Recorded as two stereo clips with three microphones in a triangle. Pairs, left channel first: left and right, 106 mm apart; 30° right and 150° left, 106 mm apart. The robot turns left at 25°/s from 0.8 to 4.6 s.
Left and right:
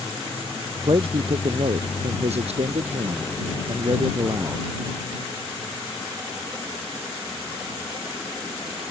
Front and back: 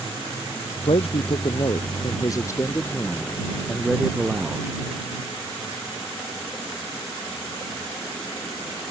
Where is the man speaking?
50° right; by 4.7 s 145° right.